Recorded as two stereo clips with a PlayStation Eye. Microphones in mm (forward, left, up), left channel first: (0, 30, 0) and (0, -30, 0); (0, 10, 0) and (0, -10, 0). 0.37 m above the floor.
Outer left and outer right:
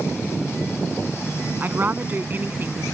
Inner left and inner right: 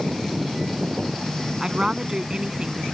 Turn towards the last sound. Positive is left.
turn(degrees=-35)  # may be behind; listen again after turning